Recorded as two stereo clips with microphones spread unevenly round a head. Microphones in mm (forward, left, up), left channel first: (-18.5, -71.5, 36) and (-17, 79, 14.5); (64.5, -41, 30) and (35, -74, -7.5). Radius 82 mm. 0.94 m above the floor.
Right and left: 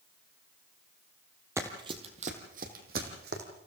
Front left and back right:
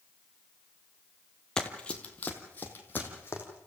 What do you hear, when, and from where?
1.6 s running footsteps: 10° left, 1.8 m; by 3.4 s 60° left, 3.5 m